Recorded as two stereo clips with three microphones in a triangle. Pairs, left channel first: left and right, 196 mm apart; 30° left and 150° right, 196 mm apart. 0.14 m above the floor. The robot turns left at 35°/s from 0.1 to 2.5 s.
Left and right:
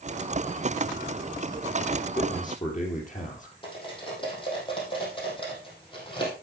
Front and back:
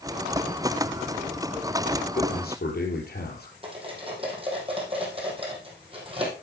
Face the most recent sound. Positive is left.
turn(degrees=150)